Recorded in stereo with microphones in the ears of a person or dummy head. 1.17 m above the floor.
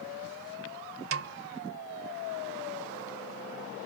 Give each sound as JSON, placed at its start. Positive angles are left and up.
{"t": 1.1, "sound": "a snare drum", "side_deg": -60, "distance_m": 1.2}